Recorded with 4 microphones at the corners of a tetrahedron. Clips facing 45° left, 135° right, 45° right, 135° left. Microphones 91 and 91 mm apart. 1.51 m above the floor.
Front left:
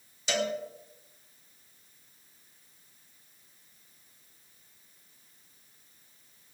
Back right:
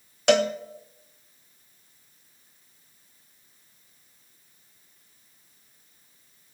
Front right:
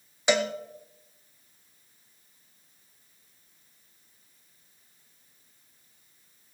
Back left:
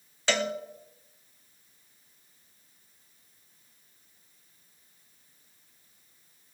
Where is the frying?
No frying in this recording.